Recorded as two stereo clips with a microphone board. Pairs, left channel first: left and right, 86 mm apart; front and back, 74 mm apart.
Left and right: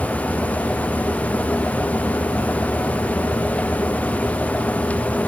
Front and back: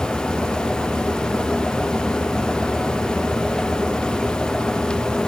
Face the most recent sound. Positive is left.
No sound to turn to.